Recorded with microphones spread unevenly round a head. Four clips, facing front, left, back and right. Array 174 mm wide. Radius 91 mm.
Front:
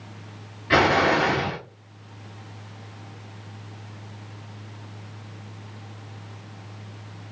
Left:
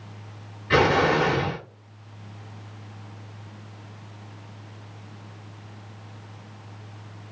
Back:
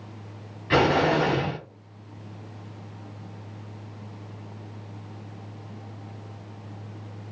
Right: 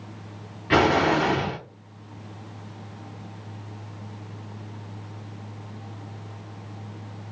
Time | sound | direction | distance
0.7 | an explosion | 100° right | 1.7 m